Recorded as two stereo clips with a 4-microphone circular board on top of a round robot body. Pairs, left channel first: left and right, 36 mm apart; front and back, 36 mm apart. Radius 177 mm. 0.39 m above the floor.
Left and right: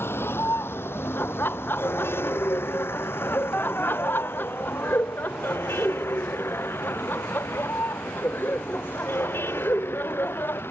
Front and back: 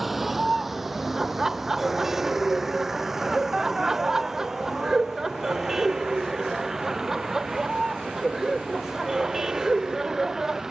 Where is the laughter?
105° left.